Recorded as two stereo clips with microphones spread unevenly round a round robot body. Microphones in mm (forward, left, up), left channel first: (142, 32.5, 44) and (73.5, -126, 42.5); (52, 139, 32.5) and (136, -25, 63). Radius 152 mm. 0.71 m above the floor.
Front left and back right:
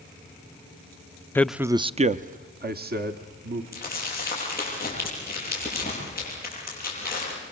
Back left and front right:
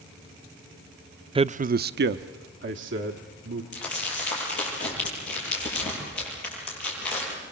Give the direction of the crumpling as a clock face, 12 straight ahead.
6 o'clock.